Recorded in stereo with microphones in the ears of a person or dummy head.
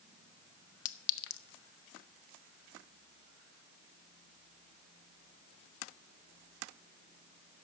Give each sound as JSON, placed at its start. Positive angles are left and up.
{"t": 0.8, "sound": "a clink", "side_deg": 70, "distance_m": 0.6}